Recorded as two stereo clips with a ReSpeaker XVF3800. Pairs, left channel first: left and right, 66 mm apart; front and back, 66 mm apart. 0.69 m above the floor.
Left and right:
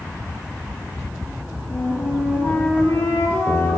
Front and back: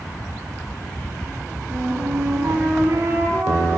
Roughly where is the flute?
Behind left.